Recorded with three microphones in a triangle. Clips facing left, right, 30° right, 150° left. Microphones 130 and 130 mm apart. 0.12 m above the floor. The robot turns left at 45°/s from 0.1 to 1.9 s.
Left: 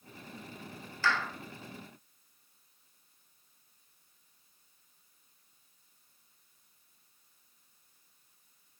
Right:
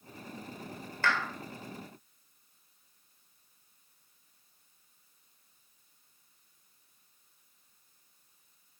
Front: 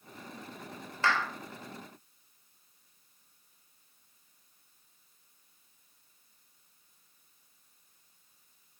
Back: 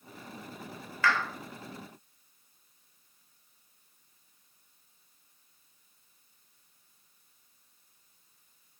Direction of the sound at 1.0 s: 85° right.